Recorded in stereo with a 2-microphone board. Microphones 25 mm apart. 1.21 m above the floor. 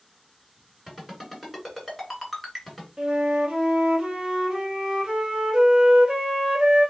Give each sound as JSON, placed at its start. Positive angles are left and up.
{"t": 0.9, "sound": "a ringtone", "side_deg": -5, "distance_m": 2.0}
{"t": 3.0, "sound": "a flute", "side_deg": -30, "distance_m": 1.1}